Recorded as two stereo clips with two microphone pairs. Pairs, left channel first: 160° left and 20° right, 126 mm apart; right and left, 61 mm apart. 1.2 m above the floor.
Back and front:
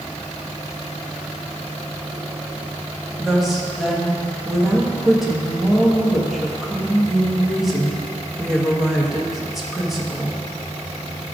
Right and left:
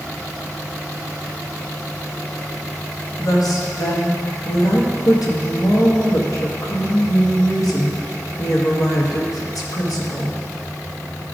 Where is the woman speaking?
110° right, 1.5 m.